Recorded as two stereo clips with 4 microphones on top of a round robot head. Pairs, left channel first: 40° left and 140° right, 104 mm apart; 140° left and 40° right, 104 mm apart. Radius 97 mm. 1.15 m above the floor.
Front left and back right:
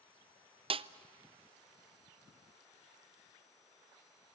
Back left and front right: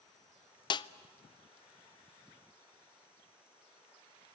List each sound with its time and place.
0.7 s a snare drum: 175° right, 0.5 m